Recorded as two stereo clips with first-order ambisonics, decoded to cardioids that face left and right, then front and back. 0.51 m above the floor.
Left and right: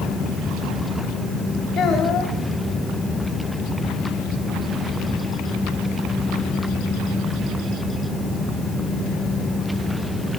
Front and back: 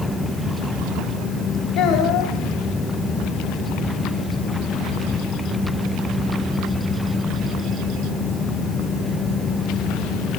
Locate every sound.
1.8 s a child speaking: 25° left, 1.6 m